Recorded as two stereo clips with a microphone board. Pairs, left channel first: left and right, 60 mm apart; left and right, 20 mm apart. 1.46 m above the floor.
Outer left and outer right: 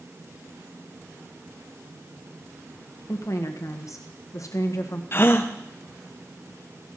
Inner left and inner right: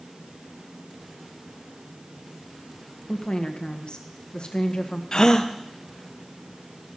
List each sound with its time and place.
3.1 s a woman speaking: 65° left (ahead or behind), 1.5 m
5.1 s a gasp: 45° left (ahead or behind), 0.8 m